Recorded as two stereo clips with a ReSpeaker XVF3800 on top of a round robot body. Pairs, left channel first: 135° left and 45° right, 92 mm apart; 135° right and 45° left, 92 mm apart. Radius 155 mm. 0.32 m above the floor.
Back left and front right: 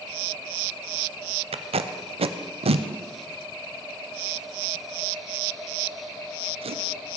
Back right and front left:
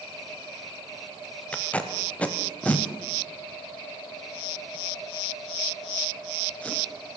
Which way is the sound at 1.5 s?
60° right.